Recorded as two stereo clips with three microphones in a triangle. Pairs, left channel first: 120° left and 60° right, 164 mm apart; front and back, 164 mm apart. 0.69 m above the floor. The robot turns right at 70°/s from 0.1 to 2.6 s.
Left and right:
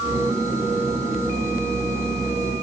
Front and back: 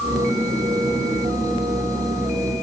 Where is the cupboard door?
I don't hear a cupboard door.